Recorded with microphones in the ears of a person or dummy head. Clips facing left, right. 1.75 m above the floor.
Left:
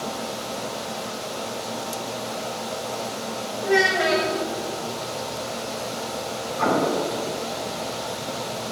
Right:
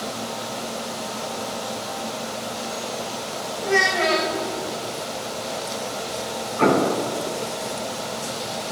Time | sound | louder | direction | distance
3.6 | a child speaking | left 1 dB | 20° left (ahead or behind) | 2.5 m
6.6 | an explosion | right 3 dB | 55° right (ahead or behind) | 2 m